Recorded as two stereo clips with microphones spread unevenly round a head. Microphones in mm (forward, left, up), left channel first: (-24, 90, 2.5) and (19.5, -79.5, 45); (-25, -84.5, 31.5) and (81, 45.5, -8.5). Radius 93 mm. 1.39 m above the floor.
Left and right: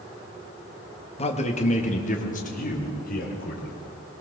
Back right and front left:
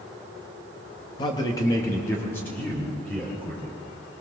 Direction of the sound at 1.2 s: 165° left.